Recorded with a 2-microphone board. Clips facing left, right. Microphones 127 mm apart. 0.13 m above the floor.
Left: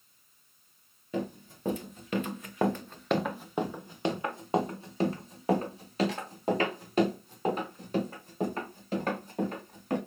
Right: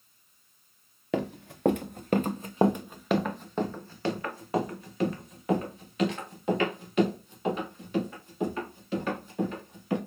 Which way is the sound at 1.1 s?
85° right.